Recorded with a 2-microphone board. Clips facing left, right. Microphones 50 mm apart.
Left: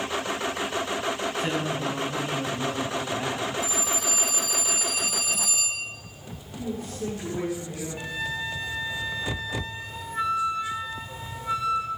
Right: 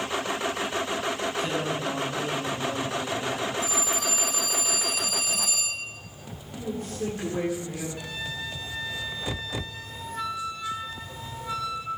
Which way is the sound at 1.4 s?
20° left (ahead or behind).